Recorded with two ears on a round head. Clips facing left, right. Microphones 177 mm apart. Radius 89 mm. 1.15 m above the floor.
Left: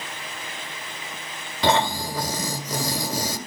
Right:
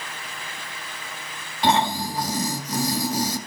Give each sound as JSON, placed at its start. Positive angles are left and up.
{"t": 1.6, "sound": "snoring", "side_deg": 65, "distance_m": 2.0}